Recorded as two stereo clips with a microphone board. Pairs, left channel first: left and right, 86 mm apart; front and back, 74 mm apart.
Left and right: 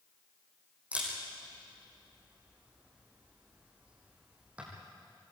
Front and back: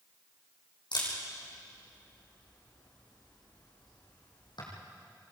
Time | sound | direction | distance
0.9 | a camera shutter | 15° right | 7.5 m